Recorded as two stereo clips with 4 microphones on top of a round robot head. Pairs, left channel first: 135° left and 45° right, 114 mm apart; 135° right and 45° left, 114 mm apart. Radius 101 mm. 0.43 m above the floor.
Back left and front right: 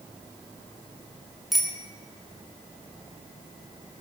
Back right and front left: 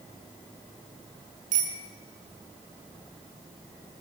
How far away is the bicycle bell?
About 4.5 m.